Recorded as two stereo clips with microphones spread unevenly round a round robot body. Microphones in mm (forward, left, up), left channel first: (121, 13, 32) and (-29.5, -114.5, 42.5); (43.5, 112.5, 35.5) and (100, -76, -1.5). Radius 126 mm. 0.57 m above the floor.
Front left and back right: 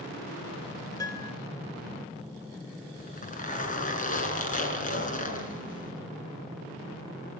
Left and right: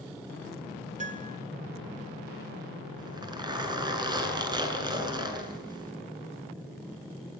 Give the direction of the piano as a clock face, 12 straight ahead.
1 o'clock.